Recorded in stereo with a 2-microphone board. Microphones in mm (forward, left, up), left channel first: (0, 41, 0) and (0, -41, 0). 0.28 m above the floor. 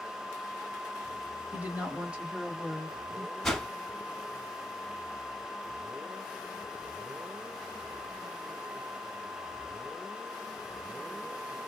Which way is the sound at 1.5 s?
20° right (ahead or behind).